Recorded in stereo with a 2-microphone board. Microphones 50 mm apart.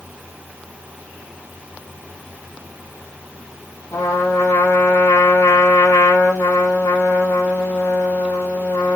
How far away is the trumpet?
About 2 m.